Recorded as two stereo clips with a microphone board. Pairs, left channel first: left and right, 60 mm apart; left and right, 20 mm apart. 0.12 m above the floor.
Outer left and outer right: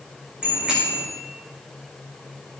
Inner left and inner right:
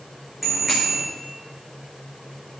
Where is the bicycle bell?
10° right (ahead or behind), 6.5 m.